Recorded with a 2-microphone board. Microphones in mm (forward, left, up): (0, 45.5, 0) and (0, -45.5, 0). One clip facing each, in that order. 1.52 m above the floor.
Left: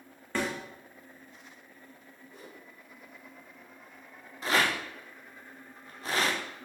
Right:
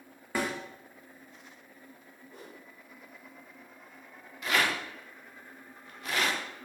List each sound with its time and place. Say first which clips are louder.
0.3 s a snare drum: even; 10° right (ahead or behind), 0.9 m
2.3 s a whoosh: right 1 dB; 60° right (ahead or behind), 1.5 m
4.4 s a rattle: left 1 dB; 30° left (ahead or behind), 0.6 m